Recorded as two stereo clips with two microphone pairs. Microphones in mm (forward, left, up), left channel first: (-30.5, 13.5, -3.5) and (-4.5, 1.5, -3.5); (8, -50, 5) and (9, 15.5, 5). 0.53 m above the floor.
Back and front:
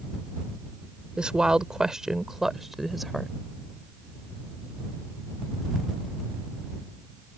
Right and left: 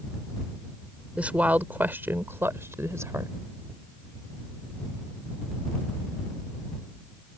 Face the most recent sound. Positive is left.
turn(degrees=65)